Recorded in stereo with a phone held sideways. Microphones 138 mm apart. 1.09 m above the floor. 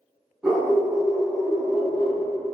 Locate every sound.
0.4 s a dog barking: 5° right (ahead or behind), 1.1 m; by 2.2 s 45° left (ahead or behind), 0.6 m